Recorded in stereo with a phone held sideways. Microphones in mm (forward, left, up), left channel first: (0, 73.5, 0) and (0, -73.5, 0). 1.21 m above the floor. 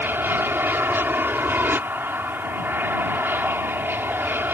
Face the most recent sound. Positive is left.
turn(degrees=-15)  # may be behind; listen again after turning